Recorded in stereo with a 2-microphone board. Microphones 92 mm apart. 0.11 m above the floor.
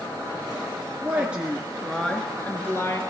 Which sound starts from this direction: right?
A woman speaking, at 1.0 s.